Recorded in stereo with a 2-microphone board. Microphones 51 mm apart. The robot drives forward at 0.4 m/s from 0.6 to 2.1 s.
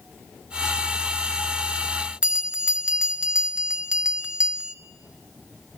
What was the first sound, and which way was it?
A bell, 20° right (ahead or behind).